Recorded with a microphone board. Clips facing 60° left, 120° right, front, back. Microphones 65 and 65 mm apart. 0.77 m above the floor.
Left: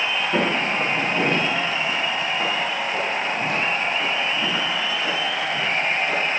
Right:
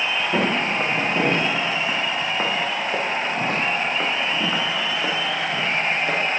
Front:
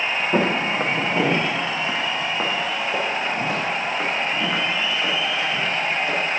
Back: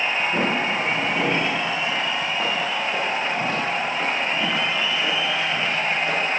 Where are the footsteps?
40° right, 3 m; by 6.2 s 95° right, 4.5 m.